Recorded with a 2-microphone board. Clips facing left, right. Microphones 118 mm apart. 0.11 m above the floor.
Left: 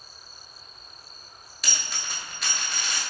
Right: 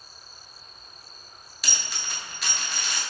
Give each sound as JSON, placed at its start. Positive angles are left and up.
{"t": 1.6, "sound": "a dropped coin", "side_deg": 0, "distance_m": 0.8}